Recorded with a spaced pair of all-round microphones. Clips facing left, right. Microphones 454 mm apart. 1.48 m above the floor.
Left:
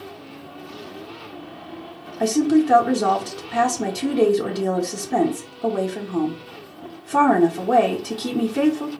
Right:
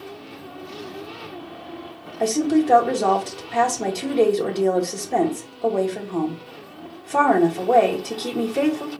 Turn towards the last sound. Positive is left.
turn(degrees=30)  # may be behind; listen again after turning